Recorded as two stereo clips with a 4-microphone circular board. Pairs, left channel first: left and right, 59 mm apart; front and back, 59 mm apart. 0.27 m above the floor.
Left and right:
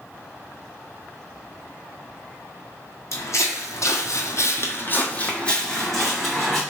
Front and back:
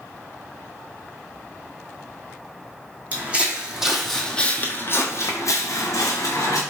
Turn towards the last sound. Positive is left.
turn(degrees=0)